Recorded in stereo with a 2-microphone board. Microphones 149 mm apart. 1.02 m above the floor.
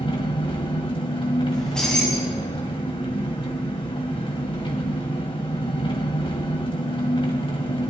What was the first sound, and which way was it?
An engine running, 40° left (ahead or behind).